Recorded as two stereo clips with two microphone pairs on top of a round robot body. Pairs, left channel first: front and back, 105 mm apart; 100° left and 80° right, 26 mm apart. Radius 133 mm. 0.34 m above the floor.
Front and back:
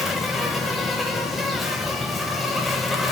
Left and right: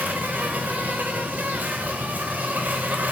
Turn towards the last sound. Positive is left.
turn(degrees=-85)